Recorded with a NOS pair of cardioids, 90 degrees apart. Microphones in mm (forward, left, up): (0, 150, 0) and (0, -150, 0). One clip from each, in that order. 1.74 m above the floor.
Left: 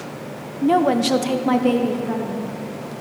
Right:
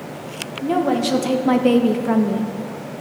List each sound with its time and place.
0.6 s a woman speaking: 30° left, 1.1 m; by 2.5 s 60° right, 0.9 m